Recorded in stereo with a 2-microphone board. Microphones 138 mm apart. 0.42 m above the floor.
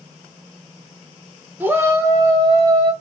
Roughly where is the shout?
Centre.